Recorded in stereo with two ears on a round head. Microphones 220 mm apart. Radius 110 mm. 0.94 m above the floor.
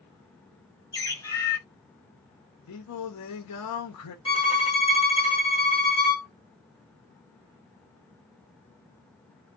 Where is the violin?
20° left (ahead or behind), 2.5 m.